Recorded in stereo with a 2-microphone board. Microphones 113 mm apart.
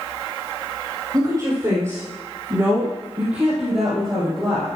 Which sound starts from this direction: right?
A woman speaking, at 1.1 s.